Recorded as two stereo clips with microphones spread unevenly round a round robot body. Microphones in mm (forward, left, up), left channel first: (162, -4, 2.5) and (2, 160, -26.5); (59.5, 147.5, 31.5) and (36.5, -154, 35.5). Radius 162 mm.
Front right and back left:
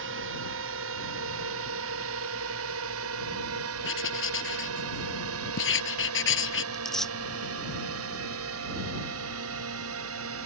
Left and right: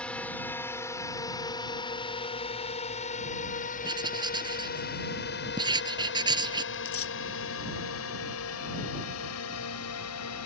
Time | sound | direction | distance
0.0 | a drone | 170° left | ?
3.8 | writing | 20° right | ?
6.7 | tearing paper | 40° left | ?